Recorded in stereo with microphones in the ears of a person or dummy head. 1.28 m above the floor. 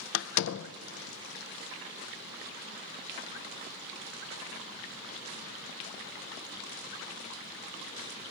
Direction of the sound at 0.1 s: 75° left (ahead or behind).